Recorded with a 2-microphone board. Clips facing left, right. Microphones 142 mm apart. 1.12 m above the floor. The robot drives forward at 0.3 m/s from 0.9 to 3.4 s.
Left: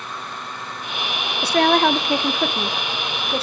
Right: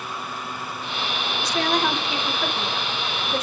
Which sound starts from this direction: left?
A woman speaking, at 1.4 s.